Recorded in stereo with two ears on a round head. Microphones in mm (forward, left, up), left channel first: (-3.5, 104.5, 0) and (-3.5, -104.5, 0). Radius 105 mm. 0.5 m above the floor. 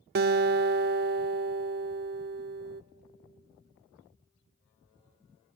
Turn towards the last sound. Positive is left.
turn(degrees=-45)  # may be behind; listen again after turning